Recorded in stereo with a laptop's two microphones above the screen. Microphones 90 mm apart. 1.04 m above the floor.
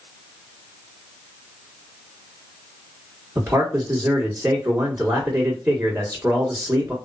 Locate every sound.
3.4 s a man speaking: 35° right (ahead or behind), 1.5 m